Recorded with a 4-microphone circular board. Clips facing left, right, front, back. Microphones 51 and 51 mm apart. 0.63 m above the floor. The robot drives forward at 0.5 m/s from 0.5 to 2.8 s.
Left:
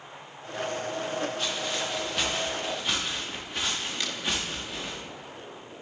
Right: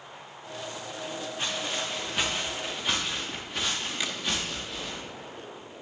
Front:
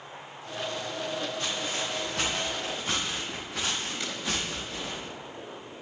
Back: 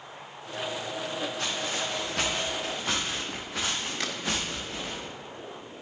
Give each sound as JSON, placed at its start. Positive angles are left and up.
{"t": 1.4, "sound": "footsteps", "azimuth_deg": -165, "distance_m": 5.0}
{"t": 4.0, "sound": "a crack", "azimuth_deg": -165, "distance_m": 0.8}